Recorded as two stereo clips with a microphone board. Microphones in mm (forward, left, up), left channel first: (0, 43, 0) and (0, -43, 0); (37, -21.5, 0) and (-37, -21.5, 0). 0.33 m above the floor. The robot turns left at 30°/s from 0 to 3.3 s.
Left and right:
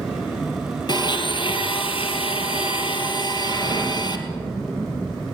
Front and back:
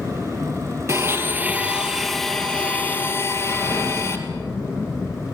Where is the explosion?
50° left, 7 m.